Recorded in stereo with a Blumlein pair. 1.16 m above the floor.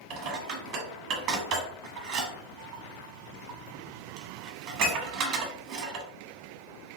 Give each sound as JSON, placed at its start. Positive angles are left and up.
{"t": 0.1, "sound": "dishes clattering", "azimuth_deg": -35, "distance_m": 1.1}